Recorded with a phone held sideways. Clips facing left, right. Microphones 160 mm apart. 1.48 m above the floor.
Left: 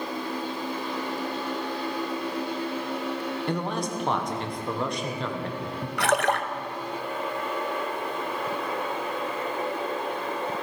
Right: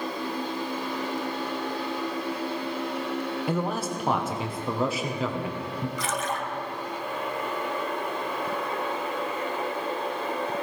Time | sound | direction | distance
3.5 | a man speaking | 5° right (ahead or behind) | 1.2 m
6.0 | a splash | 60° left (ahead or behind) | 0.8 m